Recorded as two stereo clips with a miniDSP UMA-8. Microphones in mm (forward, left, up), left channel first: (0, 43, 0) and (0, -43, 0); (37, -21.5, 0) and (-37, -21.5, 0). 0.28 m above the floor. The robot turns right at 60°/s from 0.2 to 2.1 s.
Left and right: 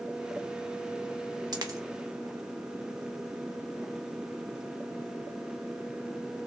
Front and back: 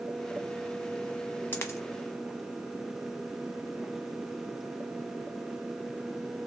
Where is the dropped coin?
60° right, 0.7 m; by 1.8 s 45° right, 0.7 m.